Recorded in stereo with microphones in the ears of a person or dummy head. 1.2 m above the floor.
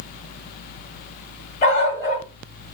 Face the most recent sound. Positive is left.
turn(degrees=45)  # may be behind; listen again after turning